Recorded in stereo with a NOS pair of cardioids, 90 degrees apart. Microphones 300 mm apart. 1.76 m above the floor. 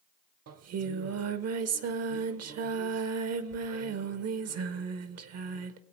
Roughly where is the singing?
Ahead right.